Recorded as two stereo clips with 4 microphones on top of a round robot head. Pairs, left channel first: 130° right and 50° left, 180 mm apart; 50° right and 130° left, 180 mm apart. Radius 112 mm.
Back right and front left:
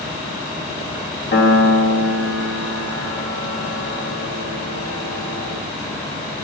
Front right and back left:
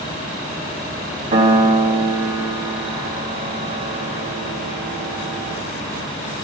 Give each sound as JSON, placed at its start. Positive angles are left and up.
{"t": 1.3, "sound": "a piano", "azimuth_deg": -170, "distance_m": 3.0}